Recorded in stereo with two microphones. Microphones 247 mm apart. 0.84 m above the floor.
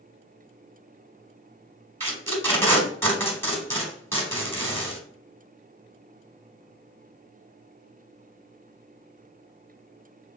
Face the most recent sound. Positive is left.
turn(degrees=10)  # may be behind; listen again after turning